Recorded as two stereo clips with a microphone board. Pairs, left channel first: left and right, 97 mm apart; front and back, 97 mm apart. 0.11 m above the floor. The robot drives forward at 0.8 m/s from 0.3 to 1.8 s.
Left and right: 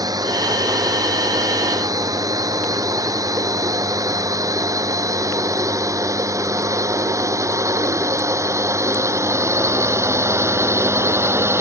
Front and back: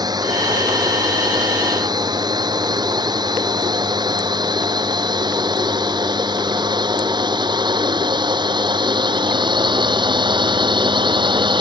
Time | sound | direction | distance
0.0 | a drone | 135° right | ?